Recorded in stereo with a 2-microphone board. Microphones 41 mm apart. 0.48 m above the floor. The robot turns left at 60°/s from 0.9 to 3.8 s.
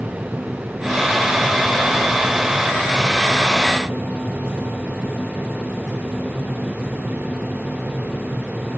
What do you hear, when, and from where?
Only background noise.